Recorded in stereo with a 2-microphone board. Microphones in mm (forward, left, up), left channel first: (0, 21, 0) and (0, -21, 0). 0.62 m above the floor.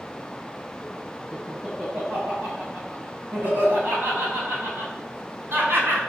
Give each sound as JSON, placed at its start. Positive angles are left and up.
{"t": 1.3, "sound": "laughter", "side_deg": -25, "distance_m": 5.0}